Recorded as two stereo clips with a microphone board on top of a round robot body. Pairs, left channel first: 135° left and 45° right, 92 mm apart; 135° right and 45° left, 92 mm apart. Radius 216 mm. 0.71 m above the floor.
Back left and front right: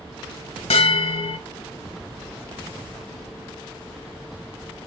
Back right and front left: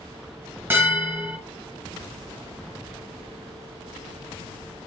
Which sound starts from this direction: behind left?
A bell, at 0.7 s.